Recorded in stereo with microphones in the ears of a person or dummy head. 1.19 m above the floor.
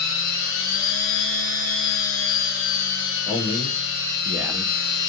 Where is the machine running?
60° left (ahead or behind), 0.8 m.